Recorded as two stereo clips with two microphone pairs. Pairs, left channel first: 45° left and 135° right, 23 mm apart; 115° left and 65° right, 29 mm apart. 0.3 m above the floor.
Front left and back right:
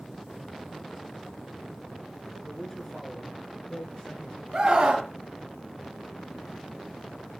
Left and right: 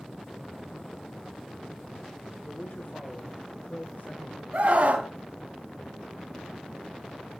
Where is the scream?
95° right, 2.5 m.